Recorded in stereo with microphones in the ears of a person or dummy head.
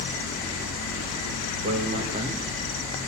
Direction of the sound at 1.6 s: 35° right (ahead or behind).